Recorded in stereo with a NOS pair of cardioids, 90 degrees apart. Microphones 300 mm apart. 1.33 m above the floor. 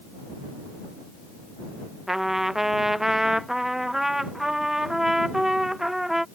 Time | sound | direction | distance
2.1 | a trumpet | straight ahead | ?